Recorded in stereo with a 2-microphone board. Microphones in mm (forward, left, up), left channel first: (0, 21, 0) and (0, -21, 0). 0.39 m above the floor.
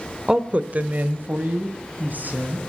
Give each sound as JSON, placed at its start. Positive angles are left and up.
{"t": 0.3, "sound": "a woman speaking", "side_deg": -20, "distance_m": 0.8}